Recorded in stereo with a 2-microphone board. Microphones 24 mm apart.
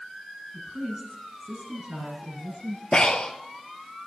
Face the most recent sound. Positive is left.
turn(degrees=45)  # may be behind; listen again after turning